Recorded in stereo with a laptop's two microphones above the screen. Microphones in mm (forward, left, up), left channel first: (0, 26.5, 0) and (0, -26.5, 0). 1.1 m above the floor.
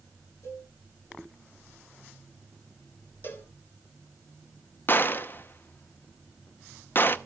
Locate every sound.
0.4 s a cowbell: 70° left (ahead or behind), 10 m
3.2 s a cowbell: 45° left (ahead or behind), 2.5 m
4.9 s a gunshot: 40° left (ahead or behind), 0.9 m